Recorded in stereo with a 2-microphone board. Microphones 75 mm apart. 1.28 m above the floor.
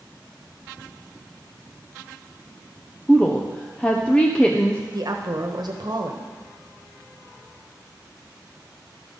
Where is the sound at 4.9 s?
65° right (ahead or behind), 1.0 m.